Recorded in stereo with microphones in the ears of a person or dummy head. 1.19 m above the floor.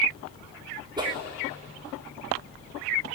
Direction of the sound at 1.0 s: 20° right (ahead or behind).